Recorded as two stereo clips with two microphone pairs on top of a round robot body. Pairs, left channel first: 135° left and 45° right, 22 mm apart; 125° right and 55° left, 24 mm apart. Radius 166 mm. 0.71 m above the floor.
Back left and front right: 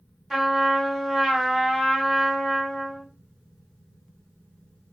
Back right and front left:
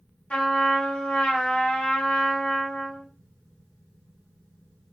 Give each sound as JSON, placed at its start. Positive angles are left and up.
{"t": 0.3, "sound": "a trumpet", "azimuth_deg": -125, "distance_m": 1.4}